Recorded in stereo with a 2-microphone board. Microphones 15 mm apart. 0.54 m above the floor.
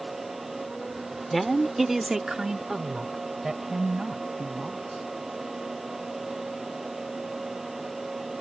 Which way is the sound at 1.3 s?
10° left (ahead or behind).